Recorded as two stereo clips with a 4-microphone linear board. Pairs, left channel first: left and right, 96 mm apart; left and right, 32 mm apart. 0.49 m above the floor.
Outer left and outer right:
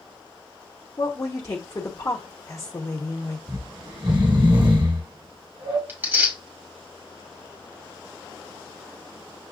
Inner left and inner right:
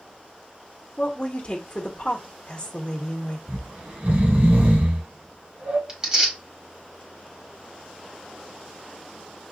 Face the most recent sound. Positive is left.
turn(degrees=-20)  # may be behind; listen again after turning